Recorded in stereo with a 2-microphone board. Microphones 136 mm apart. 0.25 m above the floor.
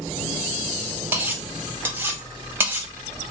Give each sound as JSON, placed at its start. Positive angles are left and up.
{"t": 1.1, "sound": "cutlery clinking", "side_deg": -15, "distance_m": 0.6}